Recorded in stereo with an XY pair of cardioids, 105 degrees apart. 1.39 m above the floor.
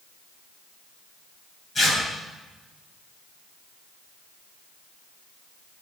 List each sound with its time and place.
1.8 s tearing paper: 35° left, 8.5 m